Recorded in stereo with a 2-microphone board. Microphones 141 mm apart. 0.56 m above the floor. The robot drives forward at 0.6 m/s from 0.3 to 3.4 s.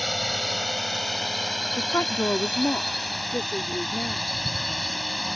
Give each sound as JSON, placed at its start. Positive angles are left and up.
{"t": 0.0, "sound": "a drone", "side_deg": 0}
{"t": 1.8, "sound": "a woman speaking", "side_deg": 15}